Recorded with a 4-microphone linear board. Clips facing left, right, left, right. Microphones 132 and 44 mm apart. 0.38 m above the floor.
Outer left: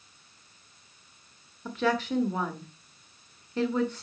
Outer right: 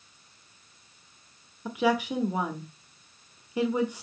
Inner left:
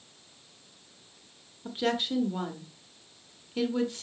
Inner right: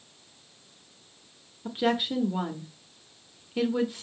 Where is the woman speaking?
15° right (ahead or behind), 1.0 m.